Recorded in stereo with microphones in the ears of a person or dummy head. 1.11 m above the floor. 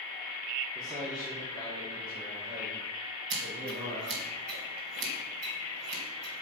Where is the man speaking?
15° right (ahead or behind), 2.5 m; by 4.2 s 25° right (ahead or behind), 6 m.